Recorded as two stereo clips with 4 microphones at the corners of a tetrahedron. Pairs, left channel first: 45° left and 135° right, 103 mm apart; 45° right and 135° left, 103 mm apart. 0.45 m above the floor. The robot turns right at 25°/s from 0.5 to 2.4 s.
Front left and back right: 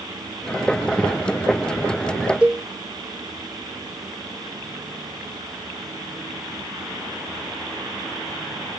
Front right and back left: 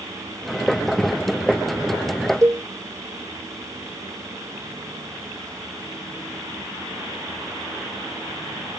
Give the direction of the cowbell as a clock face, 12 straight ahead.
7 o'clock.